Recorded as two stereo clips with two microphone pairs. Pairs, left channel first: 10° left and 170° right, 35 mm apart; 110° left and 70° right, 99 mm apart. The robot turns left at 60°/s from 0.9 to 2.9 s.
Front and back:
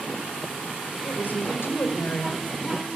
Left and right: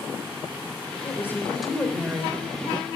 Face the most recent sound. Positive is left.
turn(degrees=-60)